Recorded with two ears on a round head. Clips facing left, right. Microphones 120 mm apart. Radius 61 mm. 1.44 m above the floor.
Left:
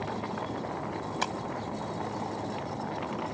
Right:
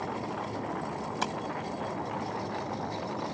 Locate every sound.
1.2 s tapping: centre (ahead or behind)